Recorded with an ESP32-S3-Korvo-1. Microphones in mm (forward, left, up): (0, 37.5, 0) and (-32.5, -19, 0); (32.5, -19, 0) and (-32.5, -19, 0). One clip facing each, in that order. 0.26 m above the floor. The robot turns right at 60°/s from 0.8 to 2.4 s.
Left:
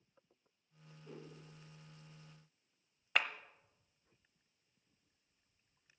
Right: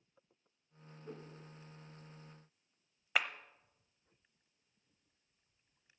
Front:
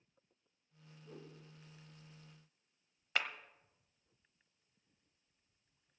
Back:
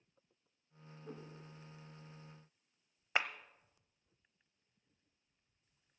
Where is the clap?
160° left, 0.9 m.